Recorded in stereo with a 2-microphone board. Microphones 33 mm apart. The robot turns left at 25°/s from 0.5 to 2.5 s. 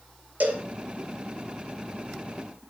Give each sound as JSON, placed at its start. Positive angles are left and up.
{"t": 0.4, "sound": "a cowbell", "side_deg": -55, "distance_m": 5.0}